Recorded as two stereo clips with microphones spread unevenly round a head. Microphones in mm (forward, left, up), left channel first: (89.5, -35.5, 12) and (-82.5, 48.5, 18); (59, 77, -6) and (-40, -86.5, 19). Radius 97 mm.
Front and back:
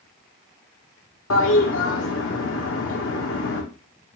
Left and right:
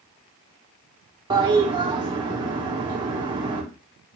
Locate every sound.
1.3 s a toilet flushing: 55° right, 0.7 m